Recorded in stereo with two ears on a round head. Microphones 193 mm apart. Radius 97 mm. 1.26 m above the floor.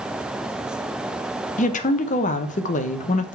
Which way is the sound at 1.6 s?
35° left (ahead or behind).